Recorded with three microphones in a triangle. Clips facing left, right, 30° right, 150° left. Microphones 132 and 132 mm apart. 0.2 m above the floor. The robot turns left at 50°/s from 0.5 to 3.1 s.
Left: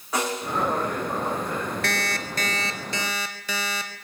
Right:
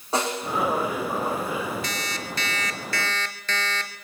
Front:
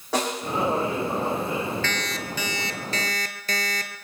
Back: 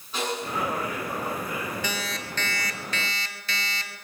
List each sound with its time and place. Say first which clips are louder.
0.1 s a snare drum: right 1 dB, front 4 dB; 30° right, 7.5 m; by 0.6 s 35° right, 7.5 m
1.8 s an alarm clock: left 3 dB, front 2 dB; 75° left, 1.4 m; by 4.0 s 10° left, 1.4 m